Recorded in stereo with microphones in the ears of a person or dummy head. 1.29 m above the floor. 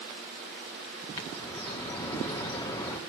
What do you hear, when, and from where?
1.2 s a bird: 15° left (ahead or behind), 2 m